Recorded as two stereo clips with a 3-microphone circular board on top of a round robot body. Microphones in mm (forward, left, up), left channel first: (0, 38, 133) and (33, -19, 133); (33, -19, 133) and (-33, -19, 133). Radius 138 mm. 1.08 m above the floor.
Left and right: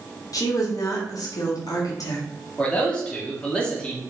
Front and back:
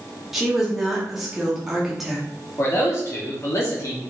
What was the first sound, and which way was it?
A woman speaking, 95° left.